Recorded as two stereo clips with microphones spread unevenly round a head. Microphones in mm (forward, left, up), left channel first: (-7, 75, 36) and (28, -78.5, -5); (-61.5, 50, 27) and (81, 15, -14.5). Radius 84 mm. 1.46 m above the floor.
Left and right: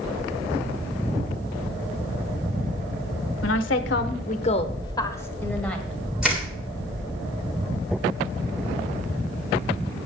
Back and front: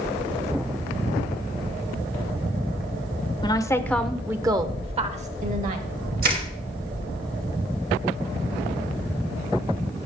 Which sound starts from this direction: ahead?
Crushing, at 6.2 s.